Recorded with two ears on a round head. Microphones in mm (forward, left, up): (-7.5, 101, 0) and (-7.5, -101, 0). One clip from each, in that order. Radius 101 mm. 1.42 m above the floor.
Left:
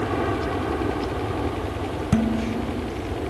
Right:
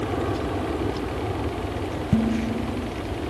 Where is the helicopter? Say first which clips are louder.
Left 2 dB; 70° left (ahead or behind); by 3.3 s 65° left (ahead or behind).